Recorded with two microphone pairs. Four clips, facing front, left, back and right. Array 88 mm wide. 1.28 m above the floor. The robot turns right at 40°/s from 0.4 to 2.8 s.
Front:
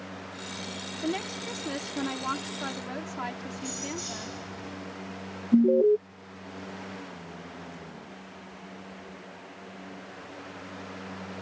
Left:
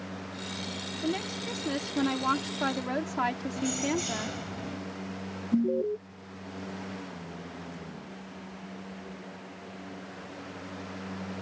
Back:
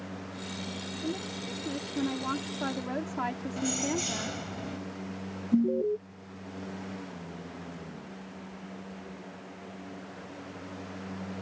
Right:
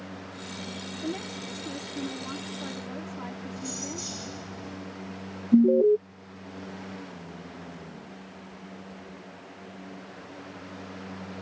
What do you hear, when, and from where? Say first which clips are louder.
1.0 s a woman speaking: left 3 dB, front 5 dB; 20° left; by 4.4 s 90° left
3.6 s keys jangling: left 9 dB, back 5 dB; 150° left
5.5 s an alarm: right 9 dB, front 6 dB; 40° right